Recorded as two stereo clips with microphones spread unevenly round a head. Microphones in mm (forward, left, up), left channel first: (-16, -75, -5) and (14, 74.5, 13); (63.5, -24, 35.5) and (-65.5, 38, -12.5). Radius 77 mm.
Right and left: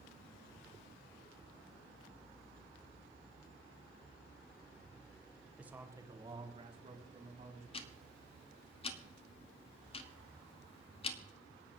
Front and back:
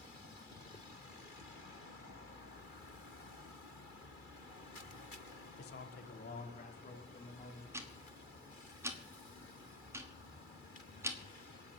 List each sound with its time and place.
5.6 s a man speaking: 5° right, 1.4 m; by 7.6 s 30° left, 3.5 m
7.7 s ticking: 110° right, 1.2 m